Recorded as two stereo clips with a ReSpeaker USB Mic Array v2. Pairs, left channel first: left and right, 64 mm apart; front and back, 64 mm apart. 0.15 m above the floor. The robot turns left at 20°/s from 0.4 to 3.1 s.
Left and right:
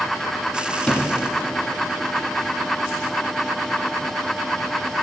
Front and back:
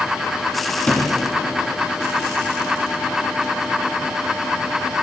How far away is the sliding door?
About 1.7 m.